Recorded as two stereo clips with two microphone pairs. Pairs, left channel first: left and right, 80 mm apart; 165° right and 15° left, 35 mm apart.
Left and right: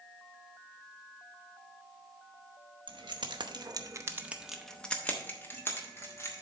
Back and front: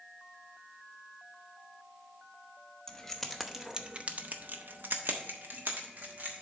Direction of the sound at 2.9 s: 90° right.